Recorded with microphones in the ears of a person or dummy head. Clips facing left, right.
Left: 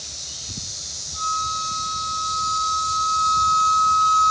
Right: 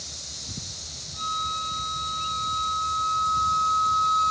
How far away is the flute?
About 6.5 m.